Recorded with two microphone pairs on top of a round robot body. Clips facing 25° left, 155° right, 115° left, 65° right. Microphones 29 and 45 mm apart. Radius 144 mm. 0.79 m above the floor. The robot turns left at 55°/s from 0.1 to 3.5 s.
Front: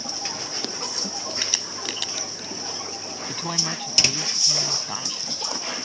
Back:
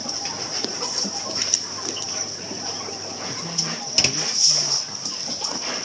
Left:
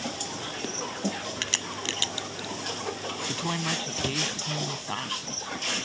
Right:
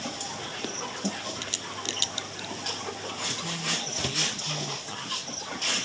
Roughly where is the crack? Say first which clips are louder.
Even, left 4 dB; left.